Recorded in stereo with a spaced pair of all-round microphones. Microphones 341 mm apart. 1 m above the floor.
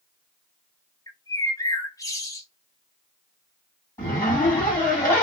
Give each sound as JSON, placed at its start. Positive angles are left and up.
{"t": 1.1, "sound": "a bird", "side_deg": 10, "distance_m": 0.6}
{"t": 4.0, "sound": "a zipper", "side_deg": 10, "distance_m": 1.6}